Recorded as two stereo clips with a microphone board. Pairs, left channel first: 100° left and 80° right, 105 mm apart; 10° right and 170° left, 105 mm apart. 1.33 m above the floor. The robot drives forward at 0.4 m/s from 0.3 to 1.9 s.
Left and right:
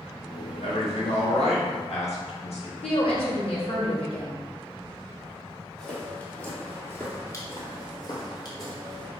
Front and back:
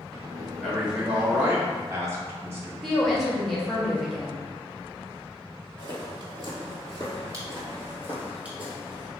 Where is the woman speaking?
80° left, 1.3 m.